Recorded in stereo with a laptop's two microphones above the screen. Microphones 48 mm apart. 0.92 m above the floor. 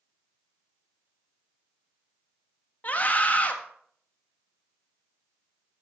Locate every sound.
2.8 s a scream: 35° left (ahead or behind), 1.5 m